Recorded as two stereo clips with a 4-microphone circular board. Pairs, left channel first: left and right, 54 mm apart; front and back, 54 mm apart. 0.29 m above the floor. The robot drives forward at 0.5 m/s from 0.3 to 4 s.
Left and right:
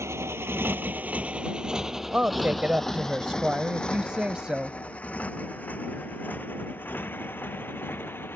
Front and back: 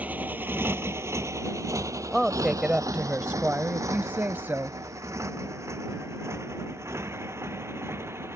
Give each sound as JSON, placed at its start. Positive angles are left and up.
{"t": 0.0, "sound": "a motorcycle", "azimuth_deg": -120}
{"t": 2.1, "sound": "a woman speaking", "azimuth_deg": -105}